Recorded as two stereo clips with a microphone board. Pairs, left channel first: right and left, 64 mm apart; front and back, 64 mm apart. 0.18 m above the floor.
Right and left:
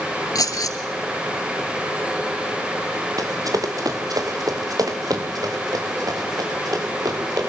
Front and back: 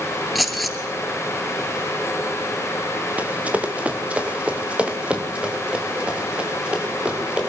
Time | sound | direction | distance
0.3 | keys jangling | 90° right | 1.9 m
3.2 | running footsteps | 110° left | 2.5 m